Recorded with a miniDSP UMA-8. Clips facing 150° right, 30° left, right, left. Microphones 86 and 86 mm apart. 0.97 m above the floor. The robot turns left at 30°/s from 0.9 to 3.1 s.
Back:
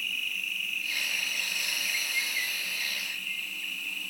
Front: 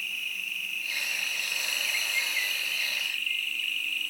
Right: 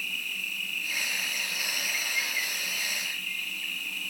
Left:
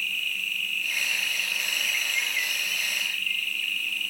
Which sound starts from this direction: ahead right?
An insect, at 0.0 s.